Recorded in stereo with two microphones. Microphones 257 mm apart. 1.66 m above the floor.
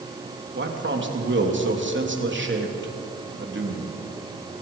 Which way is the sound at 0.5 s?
45° right (ahead or behind).